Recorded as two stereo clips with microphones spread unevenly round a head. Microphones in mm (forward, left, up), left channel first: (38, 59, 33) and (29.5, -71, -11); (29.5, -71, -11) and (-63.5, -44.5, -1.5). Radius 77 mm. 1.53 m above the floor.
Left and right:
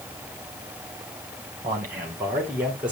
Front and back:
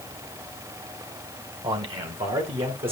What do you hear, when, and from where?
1.6 s a man speaking: 160° right, 1.8 m; by 2.9 s 175° right, 2.5 m